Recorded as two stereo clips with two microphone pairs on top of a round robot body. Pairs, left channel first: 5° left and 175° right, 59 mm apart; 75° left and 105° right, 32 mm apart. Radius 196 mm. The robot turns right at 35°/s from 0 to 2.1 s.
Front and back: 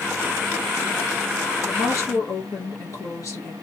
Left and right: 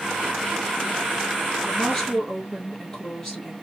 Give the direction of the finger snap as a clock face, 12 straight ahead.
No finger snap in this recording.